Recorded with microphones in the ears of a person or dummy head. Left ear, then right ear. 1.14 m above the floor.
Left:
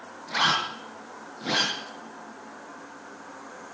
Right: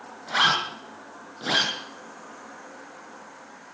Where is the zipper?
35° right (ahead or behind), 7 m.